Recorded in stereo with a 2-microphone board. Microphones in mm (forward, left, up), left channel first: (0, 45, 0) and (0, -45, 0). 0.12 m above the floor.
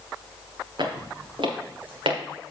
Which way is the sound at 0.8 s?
60° right (ahead or behind).